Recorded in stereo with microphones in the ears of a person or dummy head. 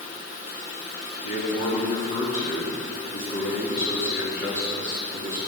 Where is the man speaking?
45° left (ahead or behind), 2.5 m.